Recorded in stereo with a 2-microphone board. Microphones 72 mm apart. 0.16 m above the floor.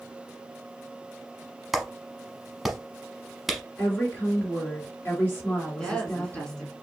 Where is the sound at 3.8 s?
30° left (ahead or behind), 2.5 m.